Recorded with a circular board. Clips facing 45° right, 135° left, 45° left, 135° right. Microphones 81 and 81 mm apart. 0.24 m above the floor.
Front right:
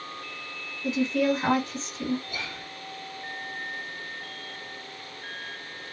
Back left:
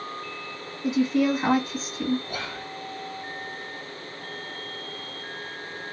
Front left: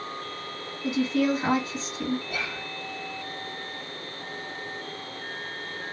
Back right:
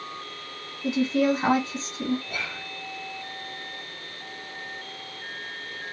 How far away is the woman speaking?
About 1.6 m.